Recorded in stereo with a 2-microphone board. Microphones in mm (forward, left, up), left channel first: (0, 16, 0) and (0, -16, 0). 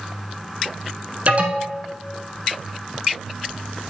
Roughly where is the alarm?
Right.